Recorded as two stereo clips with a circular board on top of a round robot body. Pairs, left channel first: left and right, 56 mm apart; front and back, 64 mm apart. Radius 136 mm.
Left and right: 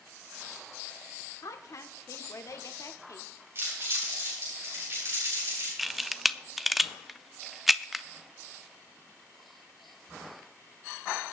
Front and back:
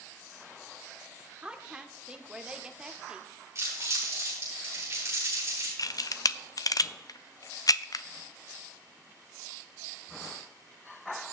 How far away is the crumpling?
About 9 m.